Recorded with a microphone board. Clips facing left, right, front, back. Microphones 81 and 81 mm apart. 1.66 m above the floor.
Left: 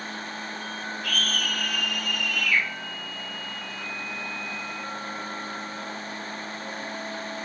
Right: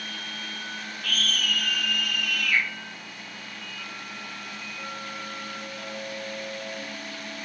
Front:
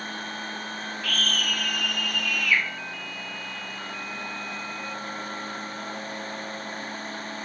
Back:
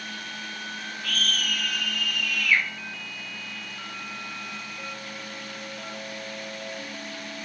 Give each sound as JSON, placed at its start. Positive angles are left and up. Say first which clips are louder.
{"t": 1.0, "sound": "a scream", "louder": "right 1 dB, front 1 dB", "azimuth_deg": -120, "distance_m": 0.9}